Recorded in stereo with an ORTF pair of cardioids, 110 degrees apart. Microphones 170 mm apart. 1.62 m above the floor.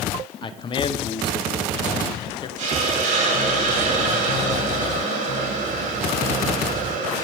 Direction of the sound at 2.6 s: 50° right.